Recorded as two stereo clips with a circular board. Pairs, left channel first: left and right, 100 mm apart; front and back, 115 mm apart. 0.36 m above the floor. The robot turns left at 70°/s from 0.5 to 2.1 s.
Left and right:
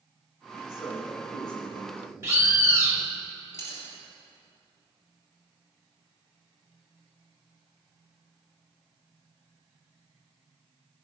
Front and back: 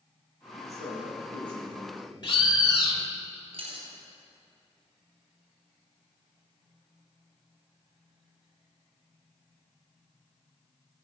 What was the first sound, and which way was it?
A man speaking, 160° right.